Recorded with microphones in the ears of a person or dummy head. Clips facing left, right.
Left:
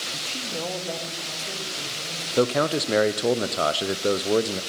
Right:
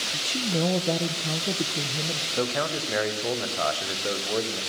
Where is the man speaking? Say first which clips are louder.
Left 7 dB; 55° left (ahead or behind), 0.7 m.